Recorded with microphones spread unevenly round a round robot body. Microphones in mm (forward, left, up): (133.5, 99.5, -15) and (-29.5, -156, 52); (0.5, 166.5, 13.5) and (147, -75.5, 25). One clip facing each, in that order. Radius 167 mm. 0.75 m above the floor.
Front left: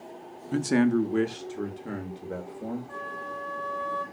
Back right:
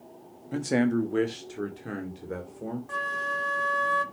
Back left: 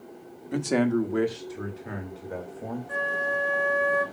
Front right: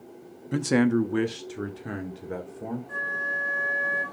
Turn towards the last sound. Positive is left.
turn(degrees=-150)